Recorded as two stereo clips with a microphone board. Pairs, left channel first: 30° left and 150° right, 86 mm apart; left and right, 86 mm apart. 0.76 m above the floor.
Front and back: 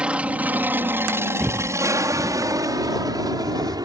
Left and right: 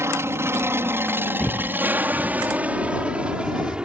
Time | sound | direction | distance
0.0 | an aircraft | 85° right | ?
1.4 | footsteps | 150° left | ?